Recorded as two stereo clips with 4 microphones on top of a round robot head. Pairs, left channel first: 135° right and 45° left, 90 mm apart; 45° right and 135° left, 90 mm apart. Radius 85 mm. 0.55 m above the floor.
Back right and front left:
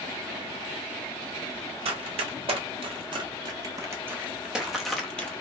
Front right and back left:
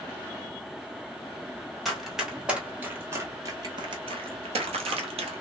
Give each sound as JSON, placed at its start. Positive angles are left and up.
{"t": 1.9, "sound": "running footsteps", "azimuth_deg": 50, "distance_m": 1.4}